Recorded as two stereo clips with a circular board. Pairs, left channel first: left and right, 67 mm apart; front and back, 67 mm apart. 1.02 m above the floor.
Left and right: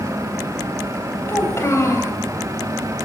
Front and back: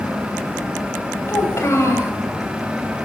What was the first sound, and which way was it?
A child speaking, 45° left.